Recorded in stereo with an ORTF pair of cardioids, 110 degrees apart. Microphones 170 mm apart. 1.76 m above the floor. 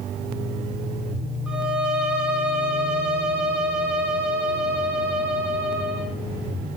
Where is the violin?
5° right, 0.7 m.